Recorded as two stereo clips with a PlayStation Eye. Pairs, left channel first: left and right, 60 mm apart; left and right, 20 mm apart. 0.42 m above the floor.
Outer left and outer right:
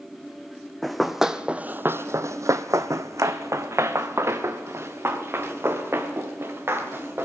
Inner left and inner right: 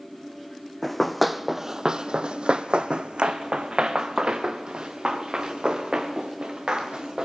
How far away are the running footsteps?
About 1.0 m.